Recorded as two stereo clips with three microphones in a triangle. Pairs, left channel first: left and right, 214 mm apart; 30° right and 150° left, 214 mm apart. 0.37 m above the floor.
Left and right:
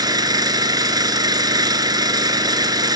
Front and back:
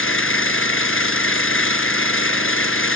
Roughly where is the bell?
I don't hear a bell.